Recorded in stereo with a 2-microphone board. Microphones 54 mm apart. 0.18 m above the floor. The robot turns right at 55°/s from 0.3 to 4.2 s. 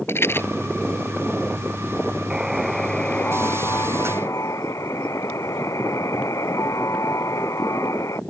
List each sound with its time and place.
0.1 s a rattle: 50° left (ahead or behind); by 0.5 s 40° left (ahead or behind)
2.3 s a buzzer: 15° right; by 8.2 s 85° left